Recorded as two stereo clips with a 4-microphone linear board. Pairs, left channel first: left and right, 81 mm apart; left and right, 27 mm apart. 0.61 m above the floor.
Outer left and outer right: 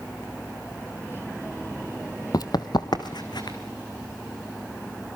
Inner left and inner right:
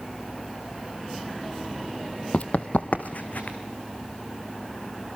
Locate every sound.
2.3 s running footsteps: 50° left (ahead or behind), 0.9 m; by 3.6 s 60° left (ahead or behind), 2.5 m